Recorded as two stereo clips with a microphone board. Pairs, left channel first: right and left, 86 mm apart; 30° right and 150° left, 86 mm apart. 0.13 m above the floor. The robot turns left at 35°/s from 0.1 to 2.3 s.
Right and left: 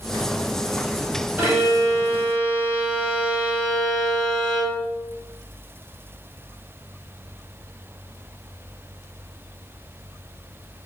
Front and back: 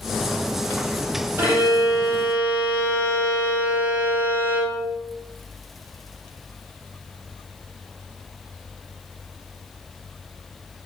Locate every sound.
1.4 s a violin: 130° left, 1.1 m; by 4.8 s 100° left, 1.1 m